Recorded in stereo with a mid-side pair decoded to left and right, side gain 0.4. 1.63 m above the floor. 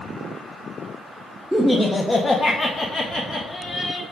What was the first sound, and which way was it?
Laughter, straight ahead.